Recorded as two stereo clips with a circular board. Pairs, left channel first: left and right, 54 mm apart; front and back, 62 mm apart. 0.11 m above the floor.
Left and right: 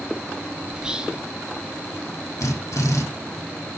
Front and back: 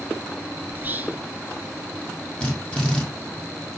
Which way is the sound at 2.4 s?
75° left.